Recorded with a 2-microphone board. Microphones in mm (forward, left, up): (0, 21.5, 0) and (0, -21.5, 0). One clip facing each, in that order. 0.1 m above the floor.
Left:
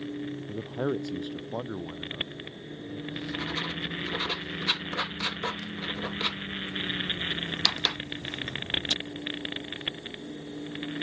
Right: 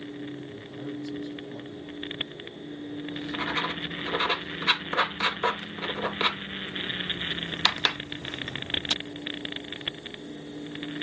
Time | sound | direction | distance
0.5 | a man speaking | 65° left (ahead or behind) | ?
3.1 | writing | 35° right (ahead or behind) | ?